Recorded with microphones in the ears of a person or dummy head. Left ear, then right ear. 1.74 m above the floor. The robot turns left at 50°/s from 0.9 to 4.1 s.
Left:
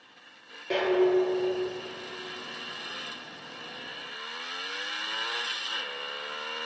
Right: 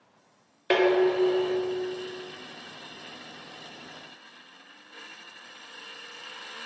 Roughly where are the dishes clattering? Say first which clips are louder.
Right 2 dB; right.